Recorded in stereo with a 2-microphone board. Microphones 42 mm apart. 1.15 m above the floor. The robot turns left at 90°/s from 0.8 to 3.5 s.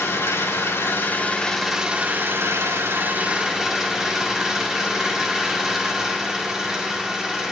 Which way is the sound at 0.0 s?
75° left.